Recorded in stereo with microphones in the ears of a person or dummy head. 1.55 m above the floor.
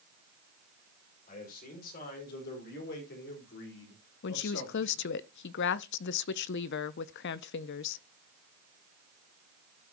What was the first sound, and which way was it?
A man speaking, 50° left (ahead or behind).